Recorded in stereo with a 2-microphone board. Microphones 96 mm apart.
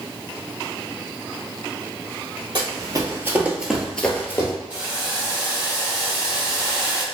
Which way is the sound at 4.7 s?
20° right (ahead or behind).